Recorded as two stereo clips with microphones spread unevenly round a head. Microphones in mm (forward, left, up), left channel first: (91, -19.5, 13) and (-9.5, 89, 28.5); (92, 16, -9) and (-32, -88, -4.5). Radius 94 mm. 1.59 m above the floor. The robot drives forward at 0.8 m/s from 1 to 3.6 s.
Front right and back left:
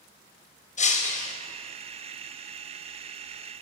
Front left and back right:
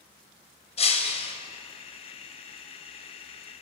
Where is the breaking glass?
10° right, 4 m.